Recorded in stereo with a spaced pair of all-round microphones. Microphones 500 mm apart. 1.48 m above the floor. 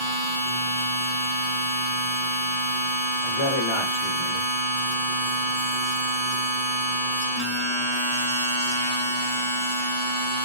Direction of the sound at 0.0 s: 35° left (ahead or behind).